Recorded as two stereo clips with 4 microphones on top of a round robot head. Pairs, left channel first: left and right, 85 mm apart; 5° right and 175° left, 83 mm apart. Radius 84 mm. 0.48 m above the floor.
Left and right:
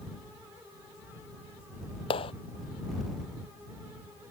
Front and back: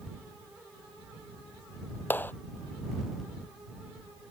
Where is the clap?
60° left.